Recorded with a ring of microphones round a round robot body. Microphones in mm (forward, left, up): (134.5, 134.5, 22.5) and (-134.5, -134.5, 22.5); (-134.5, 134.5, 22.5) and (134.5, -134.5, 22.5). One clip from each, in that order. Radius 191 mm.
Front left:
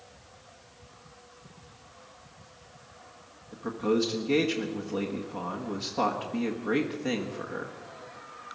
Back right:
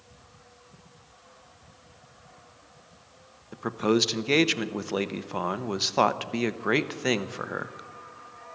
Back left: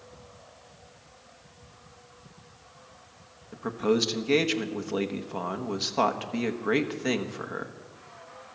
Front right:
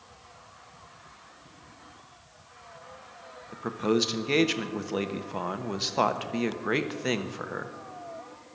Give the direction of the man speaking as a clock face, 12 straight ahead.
4 o'clock.